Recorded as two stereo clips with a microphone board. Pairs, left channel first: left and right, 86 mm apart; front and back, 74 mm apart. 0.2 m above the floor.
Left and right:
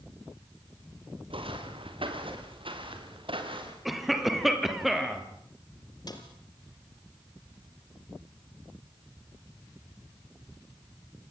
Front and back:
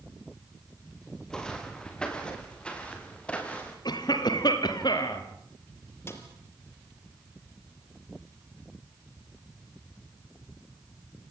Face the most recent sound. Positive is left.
turn(degrees=55)